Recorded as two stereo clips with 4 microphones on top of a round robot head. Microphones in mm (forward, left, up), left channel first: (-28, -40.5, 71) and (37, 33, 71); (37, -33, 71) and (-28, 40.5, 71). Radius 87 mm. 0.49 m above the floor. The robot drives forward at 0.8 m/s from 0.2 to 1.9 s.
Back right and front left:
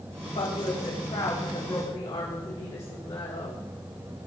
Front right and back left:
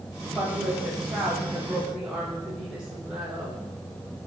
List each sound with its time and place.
0.3 s a woman speaking: 135° right, 3 m; by 3.6 s 150° right, 4 m